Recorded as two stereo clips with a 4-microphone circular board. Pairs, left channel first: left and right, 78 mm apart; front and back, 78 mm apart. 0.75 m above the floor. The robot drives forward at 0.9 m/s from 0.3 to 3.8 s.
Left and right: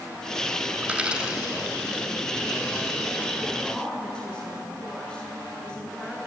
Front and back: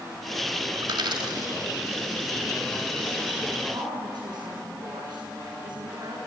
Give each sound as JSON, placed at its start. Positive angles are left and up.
{"t": 0.8, "sound": "a dropped coin", "azimuth_deg": -165, "distance_m": 1.8}
{"t": 3.7, "sound": "a woman speaking", "azimuth_deg": 170, "distance_m": 7.0}